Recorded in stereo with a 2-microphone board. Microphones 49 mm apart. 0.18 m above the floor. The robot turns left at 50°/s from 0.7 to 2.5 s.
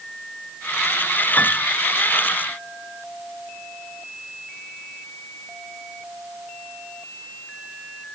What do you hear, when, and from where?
1.4 s a piano: 35° left (ahead or behind); by 1.7 s 20° left (ahead or behind)